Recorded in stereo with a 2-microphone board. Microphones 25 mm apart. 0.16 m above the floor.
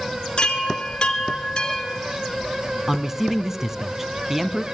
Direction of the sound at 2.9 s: 15° right (ahead or behind).